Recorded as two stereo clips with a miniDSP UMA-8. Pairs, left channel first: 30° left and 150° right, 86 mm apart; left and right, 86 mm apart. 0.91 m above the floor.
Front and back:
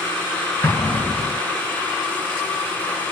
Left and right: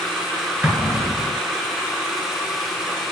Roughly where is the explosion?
Ahead.